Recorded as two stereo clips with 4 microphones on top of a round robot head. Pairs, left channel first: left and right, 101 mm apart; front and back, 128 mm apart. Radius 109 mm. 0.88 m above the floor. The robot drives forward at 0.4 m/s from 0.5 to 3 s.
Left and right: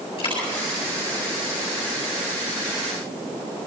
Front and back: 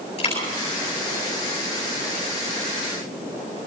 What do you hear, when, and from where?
0.2 s a dropped coin: 45° left, 8.5 m